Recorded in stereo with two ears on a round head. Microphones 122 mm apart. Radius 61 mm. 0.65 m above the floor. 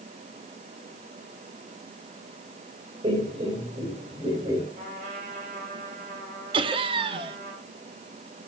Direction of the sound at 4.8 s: 60° right (ahead or behind).